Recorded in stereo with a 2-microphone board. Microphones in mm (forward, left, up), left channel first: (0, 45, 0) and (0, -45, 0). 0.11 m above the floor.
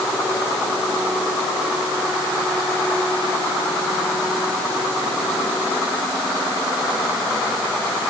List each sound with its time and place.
Only background noise.